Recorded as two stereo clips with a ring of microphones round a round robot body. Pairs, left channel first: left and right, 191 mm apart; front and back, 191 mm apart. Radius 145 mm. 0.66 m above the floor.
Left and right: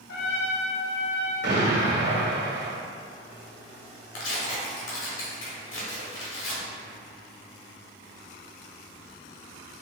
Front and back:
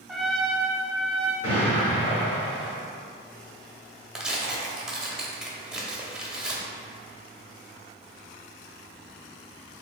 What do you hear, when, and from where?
0.1 s a trumpet: 90° left, 0.5 m
1.4 s an explosion: 65° right, 1.3 m
4.2 s tearing paper: 95° left, 0.9 m